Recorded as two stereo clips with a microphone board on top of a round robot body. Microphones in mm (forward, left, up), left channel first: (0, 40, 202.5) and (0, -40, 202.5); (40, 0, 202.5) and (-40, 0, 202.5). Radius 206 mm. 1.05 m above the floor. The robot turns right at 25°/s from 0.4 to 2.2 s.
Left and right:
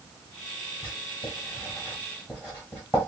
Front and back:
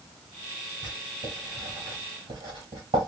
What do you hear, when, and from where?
0.8 s writing: 130° left, 1.1 m; by 3.1 s 165° left, 1.1 m